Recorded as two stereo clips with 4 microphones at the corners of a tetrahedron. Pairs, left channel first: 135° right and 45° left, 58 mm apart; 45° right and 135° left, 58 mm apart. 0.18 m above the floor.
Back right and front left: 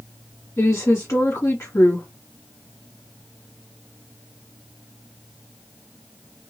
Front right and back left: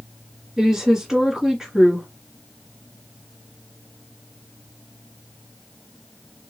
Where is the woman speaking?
145° right, 2.5 m.